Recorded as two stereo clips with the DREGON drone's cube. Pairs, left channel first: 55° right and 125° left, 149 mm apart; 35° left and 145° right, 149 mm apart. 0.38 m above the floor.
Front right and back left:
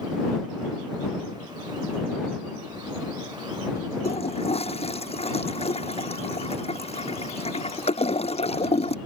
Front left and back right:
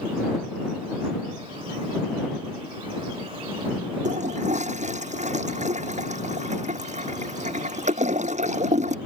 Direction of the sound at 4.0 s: 105° right.